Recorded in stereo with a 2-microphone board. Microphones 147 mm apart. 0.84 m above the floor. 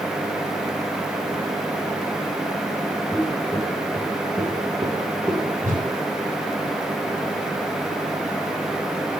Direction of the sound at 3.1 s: 5° right (ahead or behind).